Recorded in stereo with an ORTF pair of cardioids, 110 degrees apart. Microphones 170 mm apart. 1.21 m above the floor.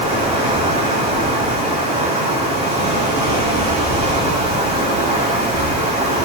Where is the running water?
35° right, 8 m.